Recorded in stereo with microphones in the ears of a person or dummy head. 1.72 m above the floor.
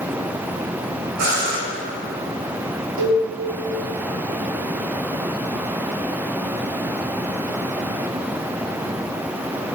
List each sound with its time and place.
1.2 s breathing: 60° right (ahead or behind), 6.5 m
3.0 s a cowbell: 70° right (ahead or behind), 4 m